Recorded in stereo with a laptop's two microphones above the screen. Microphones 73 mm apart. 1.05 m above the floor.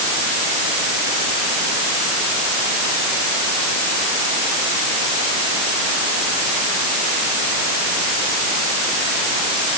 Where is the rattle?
No rattle in this recording.